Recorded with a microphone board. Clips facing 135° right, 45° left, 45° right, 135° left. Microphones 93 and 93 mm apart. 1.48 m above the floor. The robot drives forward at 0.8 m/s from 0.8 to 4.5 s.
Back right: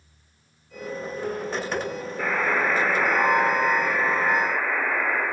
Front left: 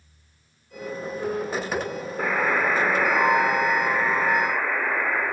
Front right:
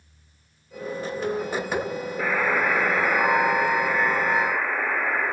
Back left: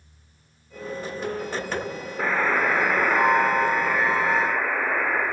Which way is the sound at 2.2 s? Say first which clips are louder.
Front left 1 dB, back left 1 dB; 90° left.